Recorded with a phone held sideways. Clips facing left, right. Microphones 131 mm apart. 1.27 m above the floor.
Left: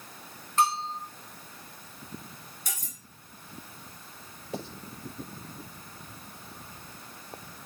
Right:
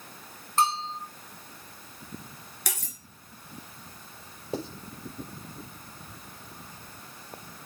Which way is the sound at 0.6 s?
35° right (ahead or behind).